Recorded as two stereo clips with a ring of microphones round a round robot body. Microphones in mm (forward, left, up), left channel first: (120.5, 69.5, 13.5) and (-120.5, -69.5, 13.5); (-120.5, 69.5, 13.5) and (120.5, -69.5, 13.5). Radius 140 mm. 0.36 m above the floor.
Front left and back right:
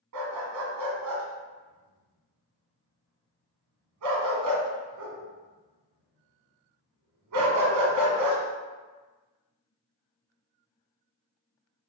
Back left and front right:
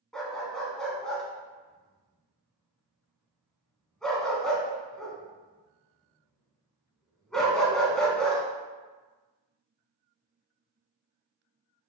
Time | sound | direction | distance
0.1 | a dog barking | 120° right | 1.5 m